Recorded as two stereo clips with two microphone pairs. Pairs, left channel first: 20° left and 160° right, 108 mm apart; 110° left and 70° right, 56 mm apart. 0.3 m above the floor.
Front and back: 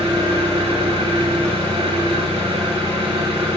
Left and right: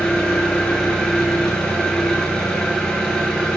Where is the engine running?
175° left, 3.5 m.